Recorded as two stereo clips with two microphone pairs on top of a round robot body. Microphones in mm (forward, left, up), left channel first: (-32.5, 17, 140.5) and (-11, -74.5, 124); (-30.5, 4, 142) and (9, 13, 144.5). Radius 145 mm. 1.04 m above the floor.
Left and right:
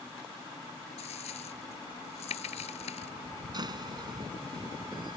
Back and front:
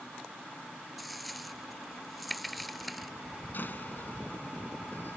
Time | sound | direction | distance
1.0 | a dropped coin | 105° left | ?
3.5 | a door slam | 120° right | ?